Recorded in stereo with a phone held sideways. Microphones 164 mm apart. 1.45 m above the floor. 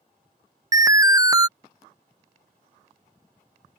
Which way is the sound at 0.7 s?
20° right (ahead or behind).